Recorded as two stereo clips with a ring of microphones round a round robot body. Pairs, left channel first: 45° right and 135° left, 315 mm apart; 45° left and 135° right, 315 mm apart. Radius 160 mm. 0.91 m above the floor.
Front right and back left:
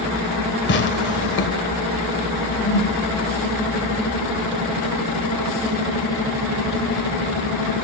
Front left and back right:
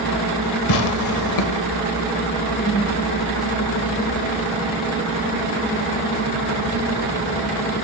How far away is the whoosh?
About 6.5 m.